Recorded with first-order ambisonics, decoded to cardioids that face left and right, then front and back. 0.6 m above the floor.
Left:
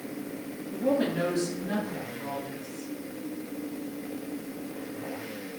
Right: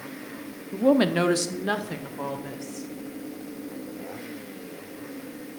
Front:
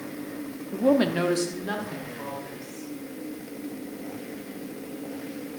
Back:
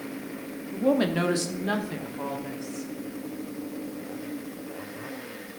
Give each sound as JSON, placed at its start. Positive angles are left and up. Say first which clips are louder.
{"t": 0.7, "sound": "a woman speaking", "louder": "right 6 dB, front 2 dB", "azimuth_deg": -55, "distance_m": 0.8}